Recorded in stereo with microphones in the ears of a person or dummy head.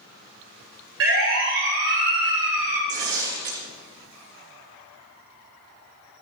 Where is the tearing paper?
55° right (ahead or behind), 4 m.